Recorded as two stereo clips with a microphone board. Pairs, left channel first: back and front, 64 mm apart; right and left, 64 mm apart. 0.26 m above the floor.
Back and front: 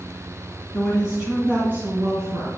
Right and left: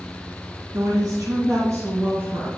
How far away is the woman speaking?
About 1.9 m.